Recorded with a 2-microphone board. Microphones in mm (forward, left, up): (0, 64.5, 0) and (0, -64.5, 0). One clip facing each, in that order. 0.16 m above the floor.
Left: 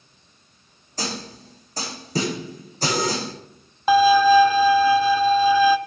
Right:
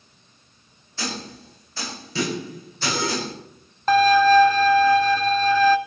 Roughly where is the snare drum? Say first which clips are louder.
Left 1 dB; left.